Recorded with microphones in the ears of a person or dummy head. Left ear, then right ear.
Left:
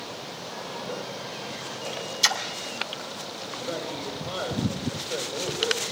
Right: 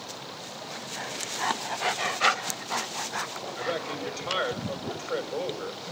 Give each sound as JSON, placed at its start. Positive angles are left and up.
{"t": 2.2, "sound": "a splash", "side_deg": 80, "distance_m": 5.5}
{"t": 3.6, "sound": "a man speaking", "side_deg": -65, "distance_m": 7.0}